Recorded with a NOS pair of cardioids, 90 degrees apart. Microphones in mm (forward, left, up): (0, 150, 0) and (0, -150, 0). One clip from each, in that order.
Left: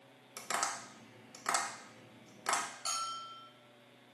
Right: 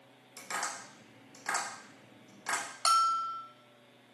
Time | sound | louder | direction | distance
0.4 | tapping | left 1 dB | 35° left | 1.2 m
2.9 | a bell | right 12 dB | 70° right | 0.5 m